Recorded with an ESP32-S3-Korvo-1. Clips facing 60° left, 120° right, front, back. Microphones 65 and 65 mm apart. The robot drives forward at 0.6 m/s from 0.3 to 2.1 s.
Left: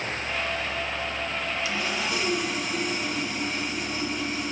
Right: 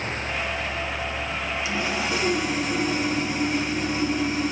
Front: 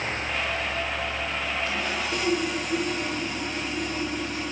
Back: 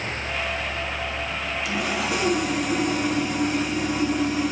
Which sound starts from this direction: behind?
Sawing, at 1.6 s.